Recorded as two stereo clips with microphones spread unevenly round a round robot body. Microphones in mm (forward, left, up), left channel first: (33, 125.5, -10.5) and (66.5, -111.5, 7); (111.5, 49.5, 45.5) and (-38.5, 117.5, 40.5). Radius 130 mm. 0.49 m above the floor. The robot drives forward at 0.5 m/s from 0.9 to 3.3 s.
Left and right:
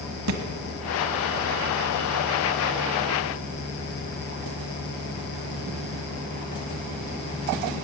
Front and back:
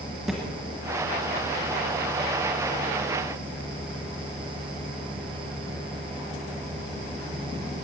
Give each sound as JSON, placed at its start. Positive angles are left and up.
{"t": 0.3, "sound": "a thud", "azimuth_deg": -115, "distance_m": 1.3}